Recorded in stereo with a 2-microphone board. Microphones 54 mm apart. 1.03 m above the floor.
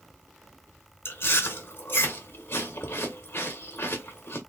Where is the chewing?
50° left (ahead or behind), 1.3 m.